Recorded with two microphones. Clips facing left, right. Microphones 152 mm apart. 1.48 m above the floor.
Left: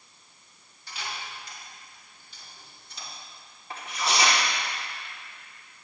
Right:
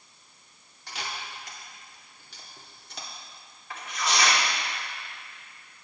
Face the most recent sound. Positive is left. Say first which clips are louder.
# left 1 dB
turn(degrees=30)  # may be behind; listen again after turning